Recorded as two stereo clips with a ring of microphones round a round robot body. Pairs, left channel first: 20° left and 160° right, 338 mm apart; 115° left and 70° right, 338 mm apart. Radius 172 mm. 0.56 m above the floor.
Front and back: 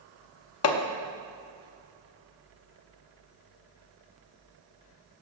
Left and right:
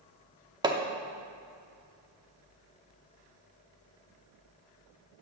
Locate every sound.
0.6 s hammering: 5° left, 0.8 m